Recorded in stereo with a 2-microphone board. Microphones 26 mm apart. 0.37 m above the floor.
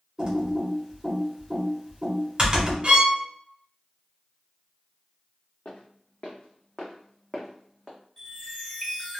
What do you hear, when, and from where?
0.2 s typing on a keyboard: 35° right (ahead or behind), 1.2 m
2.8 s a violin: 45° right (ahead or behind), 0.8 m
5.7 s footsteps: 70° left (ahead or behind), 1.1 m; by 8.0 s 10° right (ahead or behind), 1.0 m
8.2 s a chime: 10° left (ahead or behind), 1.5 m